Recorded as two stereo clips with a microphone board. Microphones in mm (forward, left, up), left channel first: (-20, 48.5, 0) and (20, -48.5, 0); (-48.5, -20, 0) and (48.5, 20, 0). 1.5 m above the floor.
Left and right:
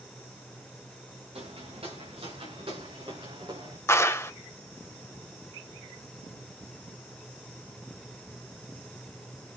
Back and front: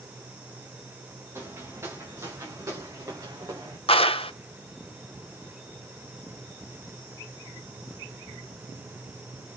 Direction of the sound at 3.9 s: 175° left.